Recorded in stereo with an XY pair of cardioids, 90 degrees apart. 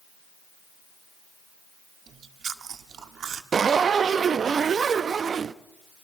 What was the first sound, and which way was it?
Chewing, 60° right.